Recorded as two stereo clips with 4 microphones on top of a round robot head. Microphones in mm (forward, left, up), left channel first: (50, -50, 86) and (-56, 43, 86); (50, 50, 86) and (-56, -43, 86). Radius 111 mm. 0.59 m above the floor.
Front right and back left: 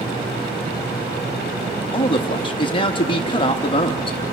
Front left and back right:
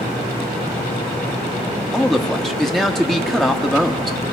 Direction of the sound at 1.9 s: 45° right.